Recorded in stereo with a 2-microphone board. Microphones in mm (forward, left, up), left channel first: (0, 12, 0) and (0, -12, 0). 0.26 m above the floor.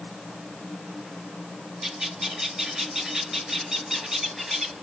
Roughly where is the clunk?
No clunk in this recording.